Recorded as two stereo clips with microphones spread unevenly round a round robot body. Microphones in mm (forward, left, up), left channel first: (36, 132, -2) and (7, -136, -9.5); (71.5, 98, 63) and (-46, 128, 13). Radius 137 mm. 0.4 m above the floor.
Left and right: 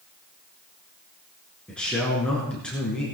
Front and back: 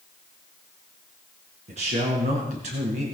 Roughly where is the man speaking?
Behind.